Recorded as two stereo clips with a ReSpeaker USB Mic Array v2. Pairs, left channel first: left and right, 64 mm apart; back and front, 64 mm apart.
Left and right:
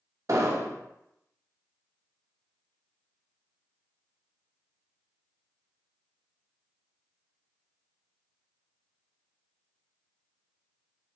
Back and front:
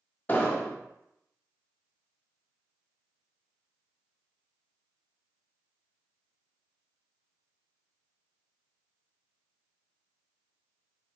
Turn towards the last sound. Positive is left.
turn(degrees=-120)